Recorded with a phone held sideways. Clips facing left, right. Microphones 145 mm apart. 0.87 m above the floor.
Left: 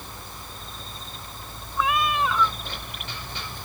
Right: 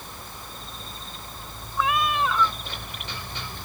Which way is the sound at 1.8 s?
Centre (ahead or behind).